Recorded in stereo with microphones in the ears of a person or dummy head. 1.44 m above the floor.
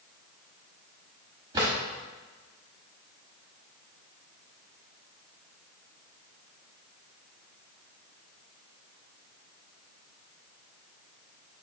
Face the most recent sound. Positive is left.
turn(degrees=-35)  # may be behind; listen again after turning